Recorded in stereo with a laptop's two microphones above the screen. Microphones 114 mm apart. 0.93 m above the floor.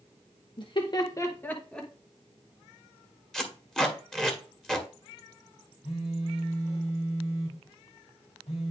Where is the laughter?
45° left (ahead or behind), 1.0 m; by 1.9 s 5° left (ahead or behind), 1.4 m.